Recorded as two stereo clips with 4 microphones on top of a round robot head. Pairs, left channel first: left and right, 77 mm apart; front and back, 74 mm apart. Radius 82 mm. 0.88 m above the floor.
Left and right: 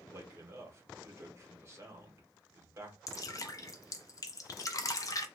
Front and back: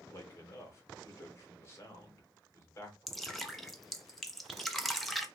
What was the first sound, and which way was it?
A man speaking, 45° right.